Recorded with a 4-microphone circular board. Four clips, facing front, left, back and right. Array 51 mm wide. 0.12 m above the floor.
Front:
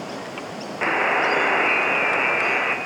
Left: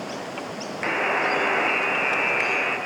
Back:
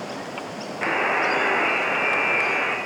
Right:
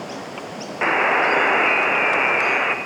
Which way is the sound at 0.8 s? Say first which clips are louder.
Right 6 dB, front 2 dB; 75° right.